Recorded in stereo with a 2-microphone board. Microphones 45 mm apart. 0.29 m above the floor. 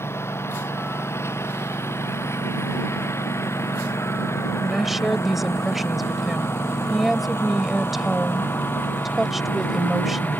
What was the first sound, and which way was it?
A lawn mower, 70° left (ahead or behind).